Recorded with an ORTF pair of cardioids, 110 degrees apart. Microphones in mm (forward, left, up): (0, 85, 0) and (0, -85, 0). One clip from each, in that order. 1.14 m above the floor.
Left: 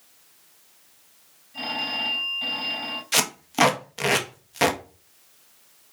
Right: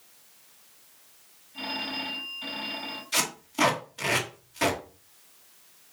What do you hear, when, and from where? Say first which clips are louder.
1.5 s a phone ringing: left 5 dB; 60° left, 5.5 m
3.1 s tape being pulled: left 5 dB; 55° left, 1.7 m